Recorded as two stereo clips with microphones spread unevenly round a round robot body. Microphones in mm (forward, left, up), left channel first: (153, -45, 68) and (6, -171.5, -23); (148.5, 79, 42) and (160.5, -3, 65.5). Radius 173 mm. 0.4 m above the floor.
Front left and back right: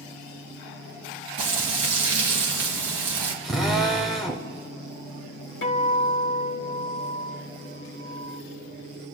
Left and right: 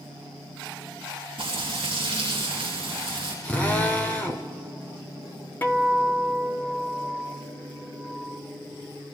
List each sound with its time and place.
1.4 s frying: 140° right, 4 m
3.4 s a drill: 155° left, 1.0 m
5.6 s a guitar: 75° left, 1.5 m